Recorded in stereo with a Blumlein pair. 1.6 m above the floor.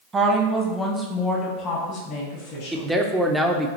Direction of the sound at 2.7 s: Straight ahead.